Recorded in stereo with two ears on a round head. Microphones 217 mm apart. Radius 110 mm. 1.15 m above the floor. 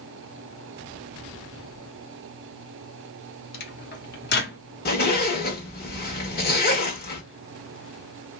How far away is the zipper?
About 1.3 m.